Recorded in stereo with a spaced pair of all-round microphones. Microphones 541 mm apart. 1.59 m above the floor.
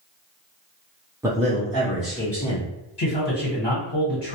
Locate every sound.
1.2 s a man speaking: 5° right (ahead or behind), 0.5 m; by 2.7 s 35° left (ahead or behind), 1.0 m
3.0 s a man speaking: 45° left (ahead or behind), 1.1 m